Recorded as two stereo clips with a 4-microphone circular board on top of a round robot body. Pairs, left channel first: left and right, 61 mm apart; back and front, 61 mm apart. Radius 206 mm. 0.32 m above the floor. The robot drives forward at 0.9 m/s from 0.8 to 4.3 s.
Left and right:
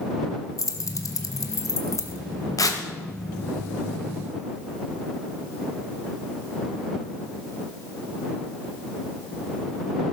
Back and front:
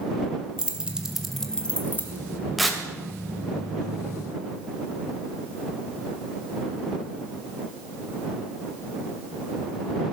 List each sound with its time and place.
0.6 s keys jangling: 70° left, 1.4 m; by 2.2 s 125° left, 1.6 m
2.6 s tearing paper: 85° left, 2 m; by 2.8 s 95° left, 2 m